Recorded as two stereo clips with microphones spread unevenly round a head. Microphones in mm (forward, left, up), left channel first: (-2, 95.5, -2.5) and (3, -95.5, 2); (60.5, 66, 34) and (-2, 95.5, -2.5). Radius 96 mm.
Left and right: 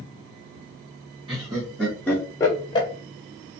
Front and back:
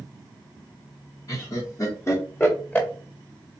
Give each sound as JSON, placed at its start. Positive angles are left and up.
{"t": 1.3, "sound": "laughter", "azimuth_deg": -20, "distance_m": 1.0}